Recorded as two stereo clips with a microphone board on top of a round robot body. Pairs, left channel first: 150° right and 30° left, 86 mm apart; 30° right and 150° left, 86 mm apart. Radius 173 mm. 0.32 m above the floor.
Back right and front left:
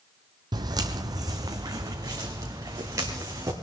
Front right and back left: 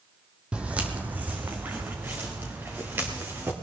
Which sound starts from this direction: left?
Footsteps, at 0.5 s.